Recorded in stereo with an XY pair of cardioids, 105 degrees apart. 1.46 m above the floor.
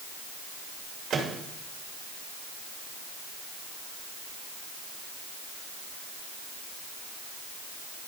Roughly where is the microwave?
Ahead right.